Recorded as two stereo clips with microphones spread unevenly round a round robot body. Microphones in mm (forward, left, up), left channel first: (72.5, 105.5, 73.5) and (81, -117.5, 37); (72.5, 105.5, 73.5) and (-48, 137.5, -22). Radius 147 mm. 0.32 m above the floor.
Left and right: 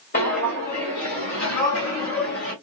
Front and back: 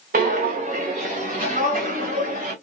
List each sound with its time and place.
0.1 s footsteps: 150° left, 1.3 m; by 2.5 s 160° left, 2.5 m